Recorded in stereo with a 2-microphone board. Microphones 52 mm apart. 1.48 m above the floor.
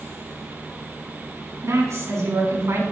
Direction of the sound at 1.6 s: 70° right (ahead or behind).